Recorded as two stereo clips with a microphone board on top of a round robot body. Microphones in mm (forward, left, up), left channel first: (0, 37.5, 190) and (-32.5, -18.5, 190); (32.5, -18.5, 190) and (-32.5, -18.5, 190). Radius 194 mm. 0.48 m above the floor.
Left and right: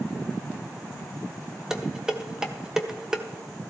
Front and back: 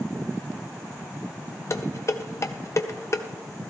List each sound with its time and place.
1.7 s dishes clattering: 40° right, 1.2 m